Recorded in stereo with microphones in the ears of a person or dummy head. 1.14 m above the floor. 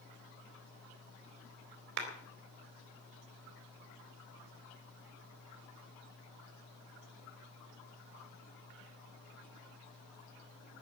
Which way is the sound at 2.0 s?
65° right (ahead or behind).